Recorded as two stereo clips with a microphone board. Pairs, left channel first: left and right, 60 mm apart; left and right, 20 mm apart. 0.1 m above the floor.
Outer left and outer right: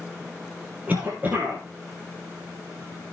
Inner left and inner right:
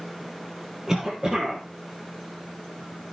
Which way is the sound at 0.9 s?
30° right (ahead or behind).